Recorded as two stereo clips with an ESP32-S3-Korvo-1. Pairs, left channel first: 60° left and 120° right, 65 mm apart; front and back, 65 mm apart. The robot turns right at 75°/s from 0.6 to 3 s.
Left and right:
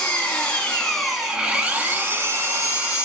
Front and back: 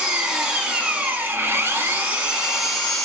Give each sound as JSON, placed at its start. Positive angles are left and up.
{"t": 0.0, "sound": "an engine running", "azimuth_deg": 110, "distance_m": 1.0}